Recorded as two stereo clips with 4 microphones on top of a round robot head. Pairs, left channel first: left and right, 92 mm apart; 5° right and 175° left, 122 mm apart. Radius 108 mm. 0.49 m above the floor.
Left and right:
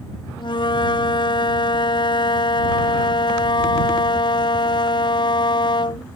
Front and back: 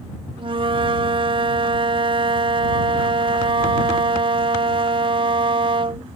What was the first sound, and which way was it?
A flute, 130° left.